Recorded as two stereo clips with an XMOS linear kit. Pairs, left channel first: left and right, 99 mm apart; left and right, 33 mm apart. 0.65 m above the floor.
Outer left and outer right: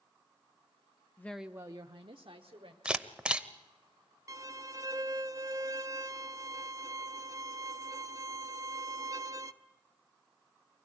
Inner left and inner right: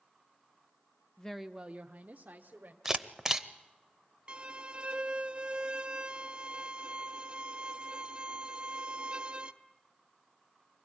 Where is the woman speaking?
25° left (ahead or behind), 0.5 m; by 2.8 s 65° right (ahead or behind), 1.7 m.